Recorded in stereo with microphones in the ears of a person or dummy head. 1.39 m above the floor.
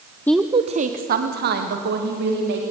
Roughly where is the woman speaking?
Centre.